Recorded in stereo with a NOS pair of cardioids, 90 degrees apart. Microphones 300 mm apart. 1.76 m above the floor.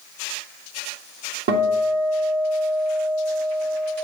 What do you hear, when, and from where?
1.5 s a guitar: 45° right, 2.5 m